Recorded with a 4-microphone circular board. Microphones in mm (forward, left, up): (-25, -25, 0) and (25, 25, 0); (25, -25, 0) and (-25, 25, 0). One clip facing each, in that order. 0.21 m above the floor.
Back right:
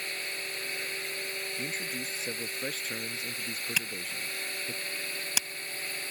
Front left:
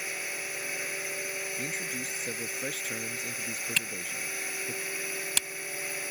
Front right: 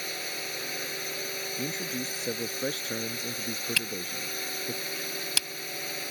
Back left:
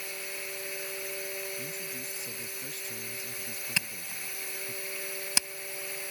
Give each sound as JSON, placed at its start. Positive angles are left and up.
{"t": 0.0, "sound": "a drone", "azimuth_deg": -35}
{"t": 1.6, "sound": "a man speaking", "azimuth_deg": -45}
{"t": 3.8, "sound": "a camera shutter", "azimuth_deg": 160}